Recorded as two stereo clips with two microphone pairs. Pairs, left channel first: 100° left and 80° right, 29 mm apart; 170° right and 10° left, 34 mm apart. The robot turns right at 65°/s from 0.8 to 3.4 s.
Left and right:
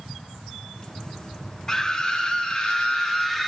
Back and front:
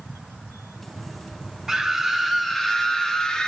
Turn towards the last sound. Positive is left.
turn(degrees=170)